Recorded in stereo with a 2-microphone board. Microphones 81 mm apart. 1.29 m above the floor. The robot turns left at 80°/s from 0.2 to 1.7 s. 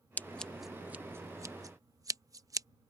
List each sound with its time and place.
0.2 s scissors: 20° left (ahead or behind); by 2.7 s 45° right (ahead or behind)